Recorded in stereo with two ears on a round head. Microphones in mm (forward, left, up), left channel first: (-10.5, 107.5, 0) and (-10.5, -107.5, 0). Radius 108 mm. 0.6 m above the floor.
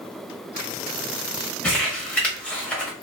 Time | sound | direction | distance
1.6 | crumpling | 5° left (ahead or behind) | 1.2 m